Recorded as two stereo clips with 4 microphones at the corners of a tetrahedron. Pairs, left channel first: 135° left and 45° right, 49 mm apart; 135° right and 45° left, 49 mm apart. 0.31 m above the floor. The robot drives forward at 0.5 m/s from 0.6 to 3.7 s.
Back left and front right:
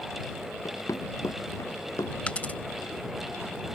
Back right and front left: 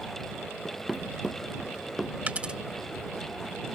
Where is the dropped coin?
85° left; by 2.6 s 105° left.